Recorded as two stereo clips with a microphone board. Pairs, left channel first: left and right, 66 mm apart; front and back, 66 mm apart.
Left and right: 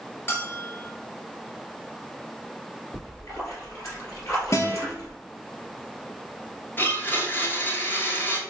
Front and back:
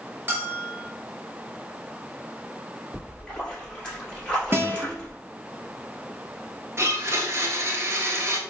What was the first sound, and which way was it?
A bell, 130° left.